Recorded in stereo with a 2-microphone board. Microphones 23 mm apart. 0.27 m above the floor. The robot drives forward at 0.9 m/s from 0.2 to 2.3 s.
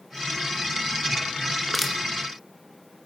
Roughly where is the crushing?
Centre.